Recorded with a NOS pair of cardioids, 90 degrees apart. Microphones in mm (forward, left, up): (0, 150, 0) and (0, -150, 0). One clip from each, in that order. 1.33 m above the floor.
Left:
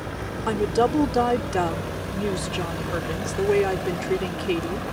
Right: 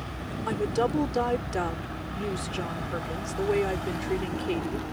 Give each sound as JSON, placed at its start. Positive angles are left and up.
{"t": 0.5, "sound": "a woman speaking", "azimuth_deg": 35}